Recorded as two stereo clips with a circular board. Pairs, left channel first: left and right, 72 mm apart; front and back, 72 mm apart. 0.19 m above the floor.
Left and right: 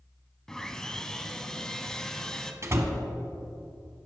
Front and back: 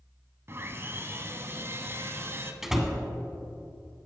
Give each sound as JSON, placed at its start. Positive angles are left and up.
{"t": 0.5, "sound": "sawing", "azimuth_deg": 170, "distance_m": 0.6}
{"t": 2.6, "sound": "a door slam", "azimuth_deg": -100, "distance_m": 1.0}